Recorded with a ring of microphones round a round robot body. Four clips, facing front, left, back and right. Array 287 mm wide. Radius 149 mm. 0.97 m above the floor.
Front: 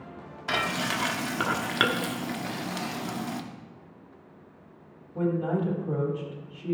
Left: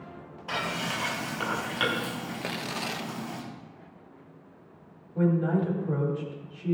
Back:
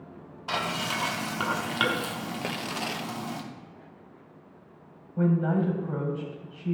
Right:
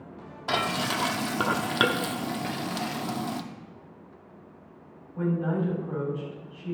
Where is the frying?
70° right, 1.0 m.